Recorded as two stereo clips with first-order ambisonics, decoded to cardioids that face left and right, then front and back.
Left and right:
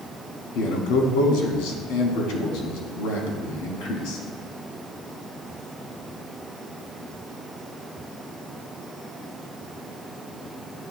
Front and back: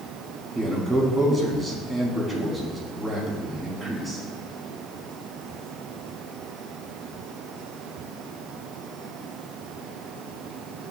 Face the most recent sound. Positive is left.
turn(degrees=95)